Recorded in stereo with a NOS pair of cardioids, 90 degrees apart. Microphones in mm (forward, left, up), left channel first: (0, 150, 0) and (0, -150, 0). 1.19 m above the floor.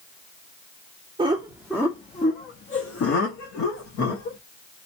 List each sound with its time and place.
1.2 s laughter: 15° right, 0.8 m; by 4.4 s 75° left, 1.5 m